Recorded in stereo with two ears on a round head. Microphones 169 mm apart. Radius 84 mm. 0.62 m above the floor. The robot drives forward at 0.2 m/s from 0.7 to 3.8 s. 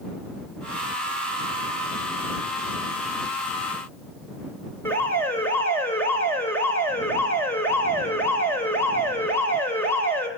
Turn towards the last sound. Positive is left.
turn(degrees=10)  # may be behind; listen again after turning